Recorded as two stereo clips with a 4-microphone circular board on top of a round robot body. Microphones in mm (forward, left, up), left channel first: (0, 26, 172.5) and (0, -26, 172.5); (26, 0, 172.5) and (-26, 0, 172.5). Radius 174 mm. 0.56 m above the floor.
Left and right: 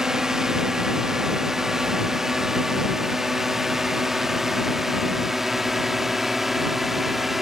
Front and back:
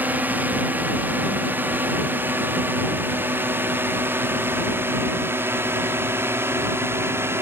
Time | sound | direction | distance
0.0 | a drone | 160° right | ?